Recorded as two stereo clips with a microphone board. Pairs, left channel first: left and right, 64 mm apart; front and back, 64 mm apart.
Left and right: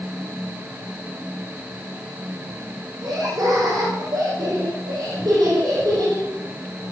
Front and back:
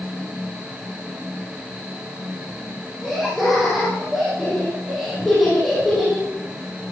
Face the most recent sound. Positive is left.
turn(degrees=-90)